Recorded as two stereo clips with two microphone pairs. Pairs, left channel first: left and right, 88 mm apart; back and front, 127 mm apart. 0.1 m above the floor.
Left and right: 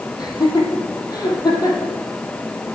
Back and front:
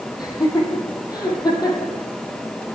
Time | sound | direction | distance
0.2 | laughter | 125° left | 4 m